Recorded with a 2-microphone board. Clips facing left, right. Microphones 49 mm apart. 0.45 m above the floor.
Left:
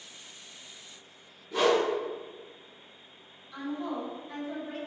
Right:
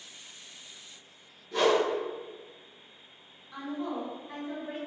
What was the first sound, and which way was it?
A whoosh, 10° left (ahead or behind).